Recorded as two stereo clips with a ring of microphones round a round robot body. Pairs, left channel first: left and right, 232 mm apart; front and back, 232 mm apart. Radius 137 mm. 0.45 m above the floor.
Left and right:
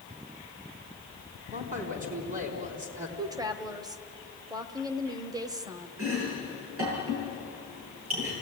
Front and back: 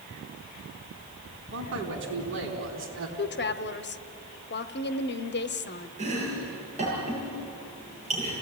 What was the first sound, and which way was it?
A man speaking, 145° right.